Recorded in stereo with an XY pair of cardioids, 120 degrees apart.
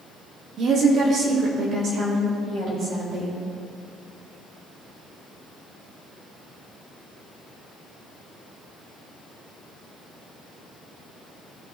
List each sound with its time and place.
0.6 s a woman speaking: 50° right, 1.2 m